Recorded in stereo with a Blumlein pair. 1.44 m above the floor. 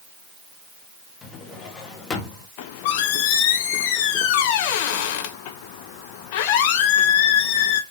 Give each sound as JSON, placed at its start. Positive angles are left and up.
{"t": 1.2, "sound": "a drawer", "azimuth_deg": 20, "distance_m": 1.5}
{"t": 2.6, "sound": "a squeak", "azimuth_deg": 45, "distance_m": 0.9}